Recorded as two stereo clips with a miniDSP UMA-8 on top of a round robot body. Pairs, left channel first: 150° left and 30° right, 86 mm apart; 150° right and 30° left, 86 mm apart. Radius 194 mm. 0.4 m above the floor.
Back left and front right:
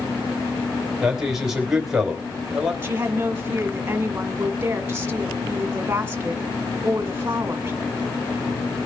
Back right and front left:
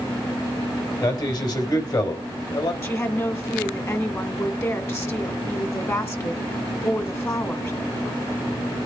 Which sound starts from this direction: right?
A woman speaking, at 2.8 s.